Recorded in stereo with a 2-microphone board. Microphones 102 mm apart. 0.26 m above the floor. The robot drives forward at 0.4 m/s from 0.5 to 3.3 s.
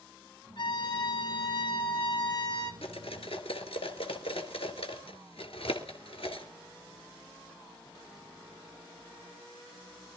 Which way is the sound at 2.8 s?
75° left (ahead or behind).